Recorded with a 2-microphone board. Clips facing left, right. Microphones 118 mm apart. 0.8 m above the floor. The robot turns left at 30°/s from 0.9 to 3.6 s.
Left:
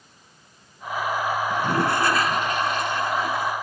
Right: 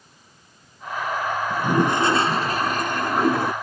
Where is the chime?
No chime in this recording.